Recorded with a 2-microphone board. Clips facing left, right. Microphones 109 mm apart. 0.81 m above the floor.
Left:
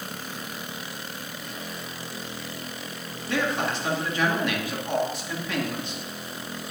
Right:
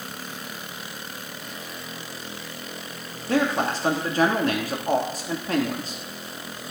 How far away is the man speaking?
About 1.7 m.